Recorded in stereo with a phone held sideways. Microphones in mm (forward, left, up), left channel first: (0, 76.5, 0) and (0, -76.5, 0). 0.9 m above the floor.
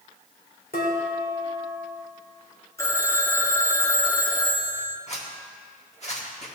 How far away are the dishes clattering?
About 1.9 m.